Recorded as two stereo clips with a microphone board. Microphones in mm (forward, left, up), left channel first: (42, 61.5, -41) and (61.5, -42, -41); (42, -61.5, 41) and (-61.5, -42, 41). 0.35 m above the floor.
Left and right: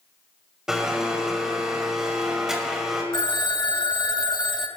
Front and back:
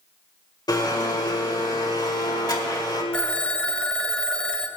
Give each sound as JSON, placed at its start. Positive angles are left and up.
{"t": 0.7, "sound": "a blender", "azimuth_deg": 5, "distance_m": 1.9}
{"t": 3.1, "sound": "a phone ringing", "azimuth_deg": 65, "distance_m": 0.9}